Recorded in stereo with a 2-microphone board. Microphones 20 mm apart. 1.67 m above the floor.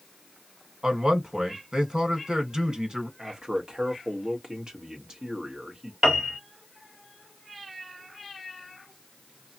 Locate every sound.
0.8 s a man speaking: 55° right (ahead or behind), 1.2 m
3.2 s a man speaking: 40° right (ahead or behind), 1.1 m
6.0 s a piano: 30° right (ahead or behind), 1.6 m